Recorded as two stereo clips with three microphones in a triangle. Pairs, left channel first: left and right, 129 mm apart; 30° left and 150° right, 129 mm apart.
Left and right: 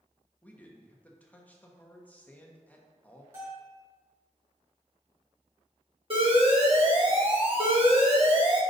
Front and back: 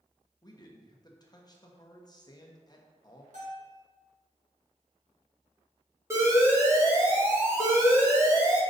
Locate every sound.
0.4 s a man speaking: 25° left, 0.9 m
3.3 s a bell: 160° right, 2.5 m
6.1 s an alarm: 90° right, 1.7 m